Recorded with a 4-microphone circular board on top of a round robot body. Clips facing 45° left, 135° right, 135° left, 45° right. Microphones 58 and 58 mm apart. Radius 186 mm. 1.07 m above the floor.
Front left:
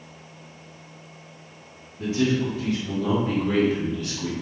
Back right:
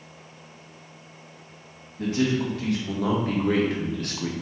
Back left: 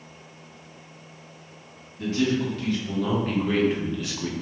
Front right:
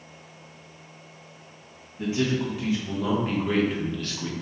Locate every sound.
2.0 s a man speaking: 115° right, 1.9 m; by 4.3 s 155° right, 0.9 m